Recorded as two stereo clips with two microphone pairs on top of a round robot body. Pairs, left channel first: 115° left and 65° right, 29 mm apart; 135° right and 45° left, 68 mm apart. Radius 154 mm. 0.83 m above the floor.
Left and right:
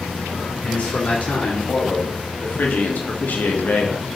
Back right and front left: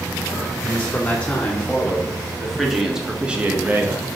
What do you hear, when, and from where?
0.6 s a man speaking: 155° left, 2.5 m; by 4.2 s 100° left, 1.2 m